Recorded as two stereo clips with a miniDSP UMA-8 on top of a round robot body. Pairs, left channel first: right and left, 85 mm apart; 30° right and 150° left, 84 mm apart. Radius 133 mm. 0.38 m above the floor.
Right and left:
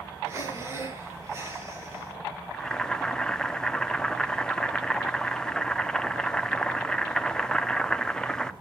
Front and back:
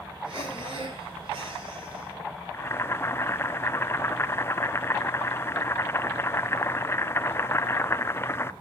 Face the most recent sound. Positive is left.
turn(degrees=-20)